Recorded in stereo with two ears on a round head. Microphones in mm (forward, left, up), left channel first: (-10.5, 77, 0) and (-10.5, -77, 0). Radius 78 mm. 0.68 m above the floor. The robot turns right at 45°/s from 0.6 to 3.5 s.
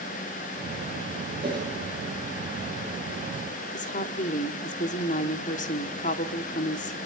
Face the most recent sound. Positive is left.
turn(degrees=50)  # may be behind; listen again after turning